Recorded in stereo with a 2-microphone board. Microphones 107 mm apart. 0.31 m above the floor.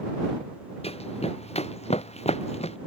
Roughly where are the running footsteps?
Left.